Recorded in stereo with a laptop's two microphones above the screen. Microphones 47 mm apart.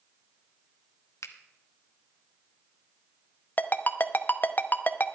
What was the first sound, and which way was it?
A finger snap, 80° left.